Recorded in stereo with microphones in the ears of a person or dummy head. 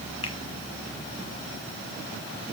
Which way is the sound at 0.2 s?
35° left (ahead or behind).